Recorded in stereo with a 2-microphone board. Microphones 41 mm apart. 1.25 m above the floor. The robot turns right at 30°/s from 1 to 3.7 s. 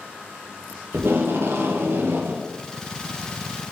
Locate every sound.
0.9 s tape being pulled: 100° right, 0.6 m; by 2.5 s 60° right, 0.6 m